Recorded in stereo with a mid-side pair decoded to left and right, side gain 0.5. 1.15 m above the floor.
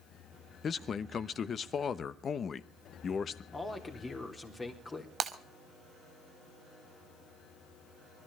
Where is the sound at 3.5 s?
20° left, 3.5 m.